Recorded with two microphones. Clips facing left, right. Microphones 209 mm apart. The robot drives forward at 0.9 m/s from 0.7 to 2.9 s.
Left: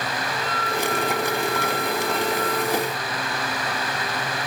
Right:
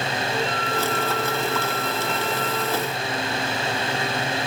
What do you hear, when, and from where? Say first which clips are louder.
0.3 s a flute: right 2 dB; 30° right (ahead or behind), 4 m; by 2.7 s 20° right (ahead or behind), 6 m